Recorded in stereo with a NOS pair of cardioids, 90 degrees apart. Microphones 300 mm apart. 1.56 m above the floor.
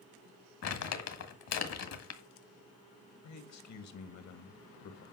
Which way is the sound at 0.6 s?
60° left.